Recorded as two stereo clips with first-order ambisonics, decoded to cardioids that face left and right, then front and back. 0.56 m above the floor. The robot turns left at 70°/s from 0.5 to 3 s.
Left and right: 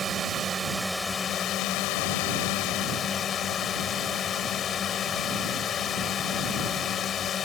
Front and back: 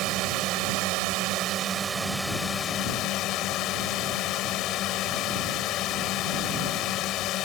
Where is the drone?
155° right; by 7.5 s 30° left.